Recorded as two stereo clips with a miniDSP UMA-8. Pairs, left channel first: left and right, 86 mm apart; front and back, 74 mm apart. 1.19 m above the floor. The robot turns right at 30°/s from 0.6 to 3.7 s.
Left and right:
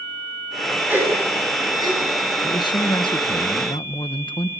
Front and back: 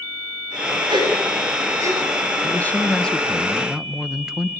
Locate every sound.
0.9 s a gasp: 160° right, 7 m; by 2.0 s 130° right, 7 m
2.4 s a man speaking: 60° left, 1.2 m; by 4.5 s 100° left, 1.2 m